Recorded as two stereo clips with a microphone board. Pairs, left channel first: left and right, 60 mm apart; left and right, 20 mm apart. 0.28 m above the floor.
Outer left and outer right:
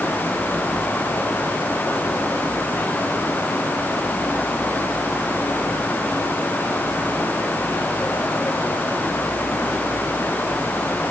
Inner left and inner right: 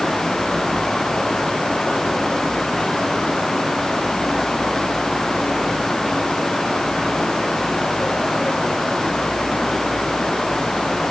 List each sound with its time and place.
Only background noise.